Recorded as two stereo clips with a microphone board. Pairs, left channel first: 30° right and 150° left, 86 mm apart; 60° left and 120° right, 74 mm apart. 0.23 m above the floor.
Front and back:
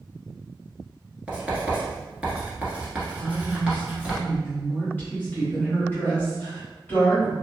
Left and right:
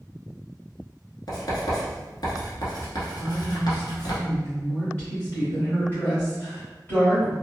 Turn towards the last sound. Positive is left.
turn(degrees=15)